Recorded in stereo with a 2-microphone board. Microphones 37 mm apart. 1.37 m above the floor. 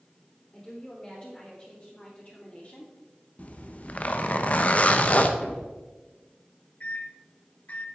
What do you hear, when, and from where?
0.5 s a woman speaking: 15° left (ahead or behind), 3.5 m; by 2.9 s 30° left (ahead or behind), 2.0 m
3.4 s a zipper: 40° left (ahead or behind), 0.7 m
5.4 s a thud: 20° left (ahead or behind), 1.5 m
6.8 s a microwave: 40° left (ahead or behind), 0.9 m